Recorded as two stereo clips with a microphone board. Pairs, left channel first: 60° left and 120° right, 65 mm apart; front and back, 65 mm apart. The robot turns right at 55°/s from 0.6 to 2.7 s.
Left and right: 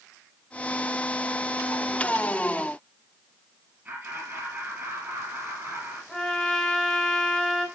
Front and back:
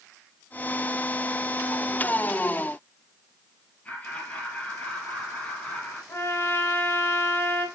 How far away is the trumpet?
About 1.7 m.